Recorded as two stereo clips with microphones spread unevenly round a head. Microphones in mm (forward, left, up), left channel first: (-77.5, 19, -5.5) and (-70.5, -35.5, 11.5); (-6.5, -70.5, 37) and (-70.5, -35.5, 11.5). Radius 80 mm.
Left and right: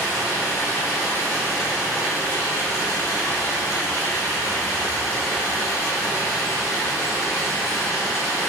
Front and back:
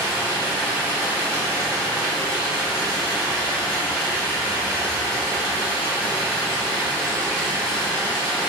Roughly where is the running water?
Ahead left.